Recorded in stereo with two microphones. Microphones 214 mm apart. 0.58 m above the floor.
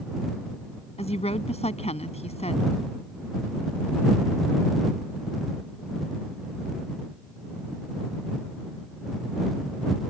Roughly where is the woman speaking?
Left.